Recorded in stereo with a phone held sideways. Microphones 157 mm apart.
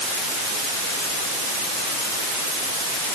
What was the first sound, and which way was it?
Only background noise.